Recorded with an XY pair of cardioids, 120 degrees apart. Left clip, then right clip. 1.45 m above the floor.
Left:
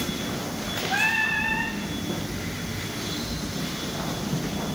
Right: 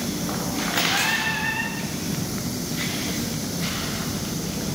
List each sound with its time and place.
0.9 s singing: 45° left, 1.9 m